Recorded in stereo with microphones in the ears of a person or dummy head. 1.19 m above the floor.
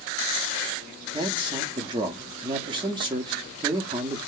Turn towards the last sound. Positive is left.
turn(degrees=-20)  # may be behind; listen again after turning